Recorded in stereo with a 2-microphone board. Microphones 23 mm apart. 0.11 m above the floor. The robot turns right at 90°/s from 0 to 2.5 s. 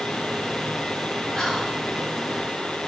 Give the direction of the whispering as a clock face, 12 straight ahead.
11 o'clock.